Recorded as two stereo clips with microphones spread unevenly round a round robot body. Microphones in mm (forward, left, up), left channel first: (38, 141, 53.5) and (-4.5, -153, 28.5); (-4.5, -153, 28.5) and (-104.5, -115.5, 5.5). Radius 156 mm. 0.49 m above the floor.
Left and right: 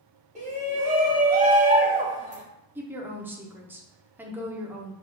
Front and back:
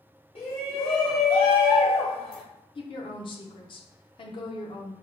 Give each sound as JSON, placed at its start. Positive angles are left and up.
{"t": 0.3, "sound": "a shout", "azimuth_deg": -30, "distance_m": 2.5}
{"t": 2.8, "sound": "a woman speaking", "azimuth_deg": -25, "distance_m": 0.9}